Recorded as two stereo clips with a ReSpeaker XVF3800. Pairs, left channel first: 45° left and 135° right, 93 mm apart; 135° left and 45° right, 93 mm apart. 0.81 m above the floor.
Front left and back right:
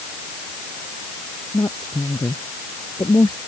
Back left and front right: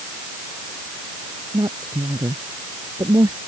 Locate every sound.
1.5 s a woman speaking: straight ahead